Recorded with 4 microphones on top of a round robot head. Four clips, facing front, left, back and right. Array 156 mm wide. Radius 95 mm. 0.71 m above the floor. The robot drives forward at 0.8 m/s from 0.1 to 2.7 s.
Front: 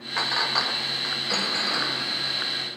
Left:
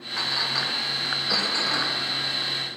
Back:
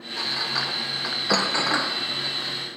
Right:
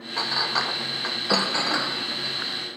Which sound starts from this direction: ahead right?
A clink, at 0.2 s.